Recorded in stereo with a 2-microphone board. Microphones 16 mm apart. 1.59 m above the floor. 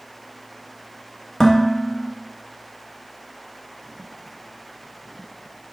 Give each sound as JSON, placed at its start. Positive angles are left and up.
{"t": 1.4, "sound": "dishes clattering", "side_deg": 20, "distance_m": 1.6}